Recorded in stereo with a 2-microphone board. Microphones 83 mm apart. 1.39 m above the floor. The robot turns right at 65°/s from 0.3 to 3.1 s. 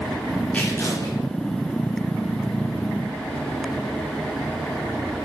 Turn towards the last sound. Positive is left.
turn(degrees=-175)